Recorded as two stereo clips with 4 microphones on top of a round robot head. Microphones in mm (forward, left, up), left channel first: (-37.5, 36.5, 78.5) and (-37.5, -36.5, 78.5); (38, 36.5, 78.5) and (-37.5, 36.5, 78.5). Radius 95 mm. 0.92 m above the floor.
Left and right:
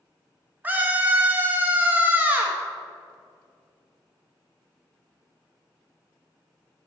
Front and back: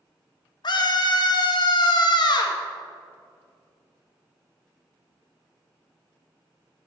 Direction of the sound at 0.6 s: 20° right.